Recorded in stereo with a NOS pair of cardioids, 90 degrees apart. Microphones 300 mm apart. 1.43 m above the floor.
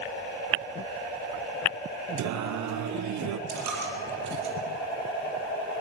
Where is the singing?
70° right, 1.0 m.